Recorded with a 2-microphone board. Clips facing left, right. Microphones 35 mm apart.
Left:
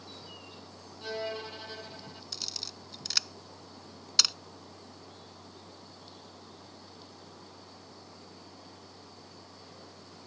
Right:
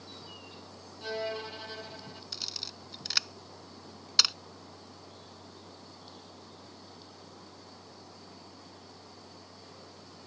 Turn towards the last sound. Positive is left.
turn(degrees=-15)  # may be behind; listen again after turning